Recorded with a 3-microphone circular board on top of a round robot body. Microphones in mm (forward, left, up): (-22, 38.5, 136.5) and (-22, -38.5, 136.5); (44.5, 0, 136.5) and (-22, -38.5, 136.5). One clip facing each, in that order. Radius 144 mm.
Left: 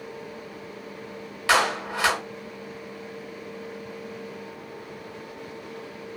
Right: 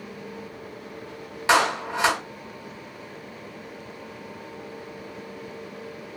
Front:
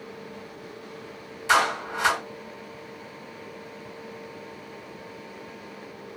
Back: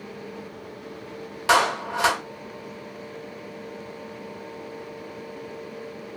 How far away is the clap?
About 1.3 m.